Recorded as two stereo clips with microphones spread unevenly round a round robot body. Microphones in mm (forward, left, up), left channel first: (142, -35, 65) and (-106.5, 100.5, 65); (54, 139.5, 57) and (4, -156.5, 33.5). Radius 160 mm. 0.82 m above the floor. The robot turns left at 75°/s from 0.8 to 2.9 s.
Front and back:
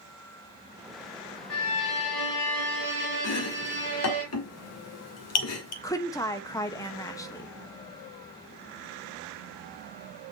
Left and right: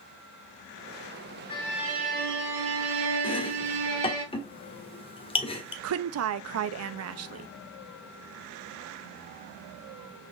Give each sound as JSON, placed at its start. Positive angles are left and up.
{"t": 1.5, "sound": "a violin", "azimuth_deg": 10, "distance_m": 3.5}
{"t": 3.2, "sound": "chopping", "azimuth_deg": 5, "distance_m": 1.3}
{"t": 5.8, "sound": "a woman speaking", "azimuth_deg": -105, "distance_m": 0.7}